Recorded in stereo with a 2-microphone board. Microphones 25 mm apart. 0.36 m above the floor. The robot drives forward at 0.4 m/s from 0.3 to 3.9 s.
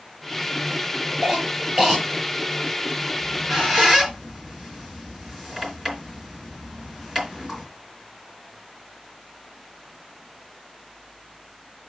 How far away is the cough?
About 5.5 m.